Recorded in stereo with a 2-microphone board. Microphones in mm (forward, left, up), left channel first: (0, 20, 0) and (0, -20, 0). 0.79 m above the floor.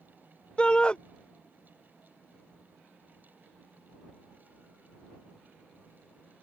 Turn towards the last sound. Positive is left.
turn(degrees=25)  # may be behind; listen again after turning